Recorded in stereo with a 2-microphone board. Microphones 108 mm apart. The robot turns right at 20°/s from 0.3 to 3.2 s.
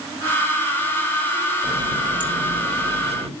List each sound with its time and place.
1.6 s a running tap: 145° right, 3 m; by 3.3 s 115° right, 3 m